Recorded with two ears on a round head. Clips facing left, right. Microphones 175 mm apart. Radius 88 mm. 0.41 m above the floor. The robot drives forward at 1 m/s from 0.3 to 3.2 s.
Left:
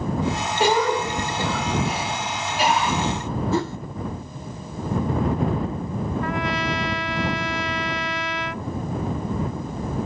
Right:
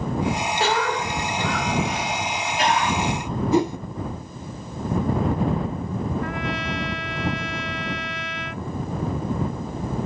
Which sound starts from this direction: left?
A trumpet, at 6.2 s.